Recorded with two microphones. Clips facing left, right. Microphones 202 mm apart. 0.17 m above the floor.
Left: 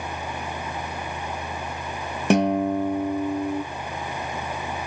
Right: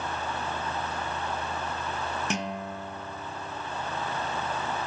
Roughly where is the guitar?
Left.